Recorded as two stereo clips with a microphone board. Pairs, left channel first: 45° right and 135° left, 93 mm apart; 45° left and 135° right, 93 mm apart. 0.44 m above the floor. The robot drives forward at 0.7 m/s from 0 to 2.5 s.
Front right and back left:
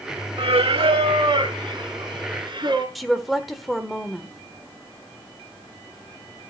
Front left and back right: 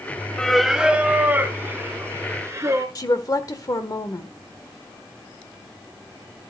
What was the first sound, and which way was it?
Singing, 125° left.